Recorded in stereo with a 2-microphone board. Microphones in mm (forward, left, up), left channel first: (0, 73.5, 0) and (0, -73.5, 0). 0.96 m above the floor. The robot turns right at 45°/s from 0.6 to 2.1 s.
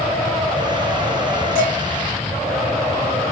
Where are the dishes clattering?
85° left, 3 m; by 1.7 s 80° left, 3 m.